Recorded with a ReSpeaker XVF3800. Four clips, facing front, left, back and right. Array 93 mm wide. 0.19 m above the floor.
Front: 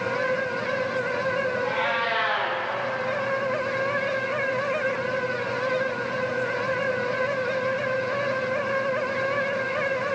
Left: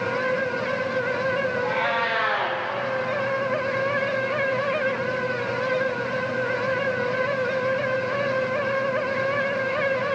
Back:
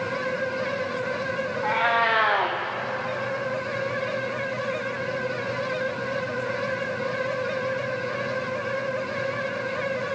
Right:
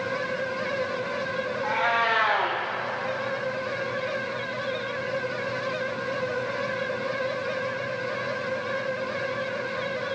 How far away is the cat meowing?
About 1.5 m.